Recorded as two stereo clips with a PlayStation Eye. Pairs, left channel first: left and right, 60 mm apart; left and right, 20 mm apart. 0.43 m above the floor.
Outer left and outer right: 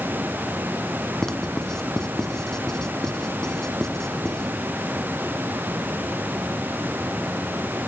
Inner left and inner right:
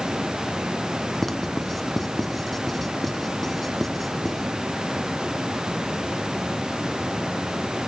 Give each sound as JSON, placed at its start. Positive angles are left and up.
{"t": 1.2, "sound": "writing", "side_deg": 10, "distance_m": 2.0}